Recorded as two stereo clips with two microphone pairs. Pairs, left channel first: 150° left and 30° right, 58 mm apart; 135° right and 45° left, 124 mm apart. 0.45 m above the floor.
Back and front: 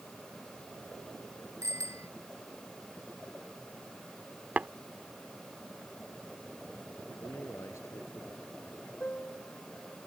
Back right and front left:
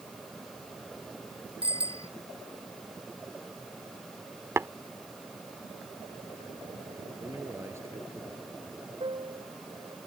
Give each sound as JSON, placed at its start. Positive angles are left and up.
{"t": 1.6, "sound": "a bicycle bell", "azimuth_deg": 10}
{"t": 4.6, "sound": "tapping", "azimuth_deg": 5}
{"t": 7.2, "sound": "a man speaking", "azimuth_deg": 115}
{"t": 9.0, "sound": "a piano", "azimuth_deg": 90}